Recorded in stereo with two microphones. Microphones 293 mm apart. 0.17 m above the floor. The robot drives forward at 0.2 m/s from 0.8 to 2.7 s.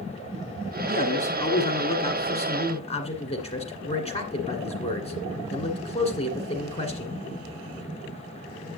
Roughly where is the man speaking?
Left.